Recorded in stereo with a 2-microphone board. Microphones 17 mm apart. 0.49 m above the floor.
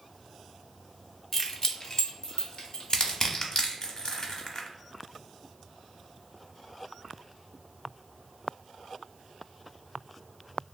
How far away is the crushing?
About 0.6 m.